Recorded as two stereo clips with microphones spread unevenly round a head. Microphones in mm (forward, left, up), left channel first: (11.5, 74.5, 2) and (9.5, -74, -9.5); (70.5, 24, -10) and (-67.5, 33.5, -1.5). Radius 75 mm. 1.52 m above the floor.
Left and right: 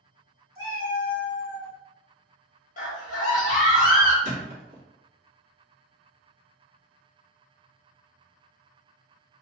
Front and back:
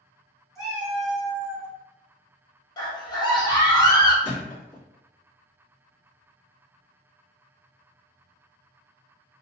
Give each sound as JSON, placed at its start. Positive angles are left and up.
{"t": 0.6, "sound": "a cat meowing", "azimuth_deg": 100, "distance_m": 1.9}
{"t": 2.8, "sound": "a scream", "azimuth_deg": 55, "distance_m": 1.0}
{"t": 4.2, "sound": "a thud", "azimuth_deg": -60, "distance_m": 1.2}